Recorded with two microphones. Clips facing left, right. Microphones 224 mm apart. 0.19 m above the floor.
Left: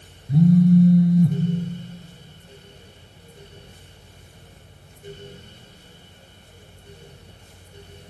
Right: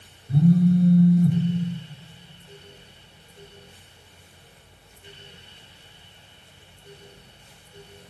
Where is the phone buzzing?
20° left (ahead or behind), 0.5 m.